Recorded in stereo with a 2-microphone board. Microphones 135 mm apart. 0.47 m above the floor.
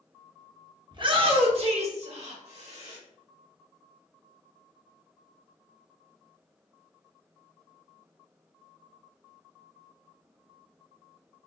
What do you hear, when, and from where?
0.9 s a shout: 35° right (ahead or behind), 0.8 m; by 3.0 s 55° right (ahead or behind), 1.7 m